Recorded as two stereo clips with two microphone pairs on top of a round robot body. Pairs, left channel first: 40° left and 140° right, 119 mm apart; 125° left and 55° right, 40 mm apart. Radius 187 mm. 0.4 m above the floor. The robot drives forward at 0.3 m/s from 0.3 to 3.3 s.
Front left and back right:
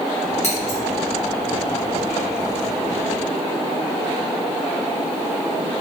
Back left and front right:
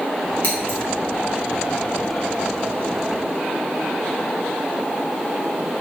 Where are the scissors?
70° left, 1.9 m; by 0.8 s 75° left, 1.9 m.